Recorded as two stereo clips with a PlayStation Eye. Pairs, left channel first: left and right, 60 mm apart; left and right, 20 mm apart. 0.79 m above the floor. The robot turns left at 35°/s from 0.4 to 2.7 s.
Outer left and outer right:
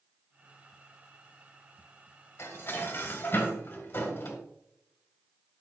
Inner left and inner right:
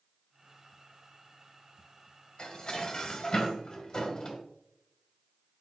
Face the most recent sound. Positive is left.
turn(degrees=40)  # may be behind; listen again after turning